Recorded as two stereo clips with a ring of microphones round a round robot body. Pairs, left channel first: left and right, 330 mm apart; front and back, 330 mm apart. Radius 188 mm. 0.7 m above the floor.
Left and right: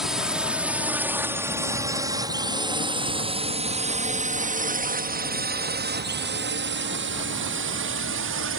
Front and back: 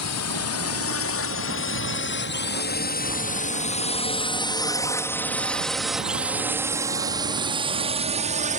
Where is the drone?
Straight ahead; by 8.6 s 125° right.